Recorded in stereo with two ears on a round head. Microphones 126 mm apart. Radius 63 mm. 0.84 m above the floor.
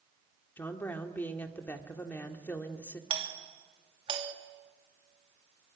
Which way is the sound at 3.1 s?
35° right (ahead or behind).